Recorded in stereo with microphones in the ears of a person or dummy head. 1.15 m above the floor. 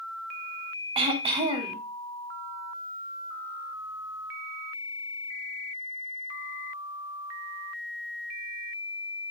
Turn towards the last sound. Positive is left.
turn(degrees=-30)  # may be behind; listen again after turning